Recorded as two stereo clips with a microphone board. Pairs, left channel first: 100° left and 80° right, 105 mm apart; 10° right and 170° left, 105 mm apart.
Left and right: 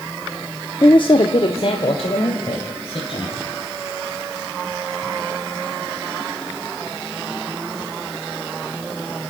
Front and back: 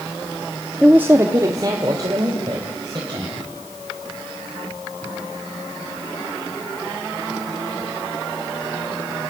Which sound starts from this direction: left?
A woman speaking, at 0.8 s.